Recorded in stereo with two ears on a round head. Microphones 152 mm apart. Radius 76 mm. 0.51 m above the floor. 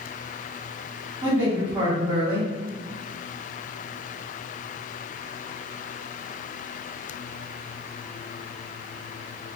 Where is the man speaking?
15° right (ahead or behind), 1.4 m.